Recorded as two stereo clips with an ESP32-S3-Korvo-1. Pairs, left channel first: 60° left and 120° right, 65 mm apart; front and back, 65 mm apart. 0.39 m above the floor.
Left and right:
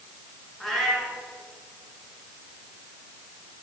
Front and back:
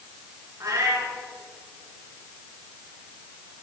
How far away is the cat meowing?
About 2.5 m.